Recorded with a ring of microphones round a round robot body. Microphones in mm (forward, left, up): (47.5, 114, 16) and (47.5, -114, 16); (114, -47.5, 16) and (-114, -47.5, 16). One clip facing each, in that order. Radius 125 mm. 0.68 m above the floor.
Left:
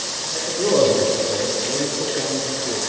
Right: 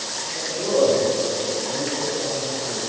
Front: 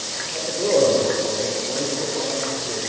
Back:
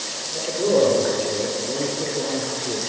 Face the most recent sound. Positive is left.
turn(degrees=130)